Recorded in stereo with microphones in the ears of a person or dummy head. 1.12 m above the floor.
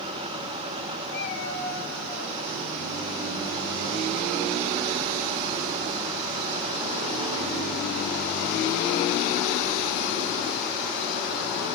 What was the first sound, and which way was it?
A cat meowing, 75° left (ahead or behind).